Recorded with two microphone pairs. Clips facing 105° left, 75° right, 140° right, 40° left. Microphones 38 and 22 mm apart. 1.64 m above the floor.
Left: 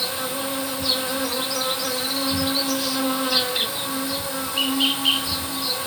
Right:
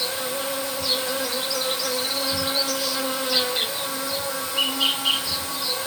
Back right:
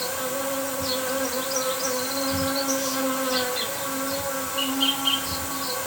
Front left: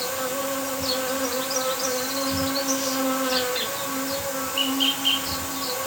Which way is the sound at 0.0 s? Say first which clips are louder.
Even, front left 1 dB; 60° left.